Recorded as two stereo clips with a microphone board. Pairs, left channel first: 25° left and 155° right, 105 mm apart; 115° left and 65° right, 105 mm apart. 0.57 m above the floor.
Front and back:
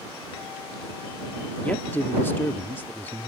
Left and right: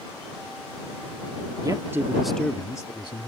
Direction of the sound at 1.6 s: 45° right.